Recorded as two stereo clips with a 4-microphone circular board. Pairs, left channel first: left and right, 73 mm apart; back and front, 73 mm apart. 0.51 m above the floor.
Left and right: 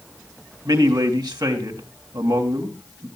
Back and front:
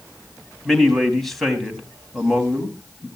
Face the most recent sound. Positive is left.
turn(degrees=-90)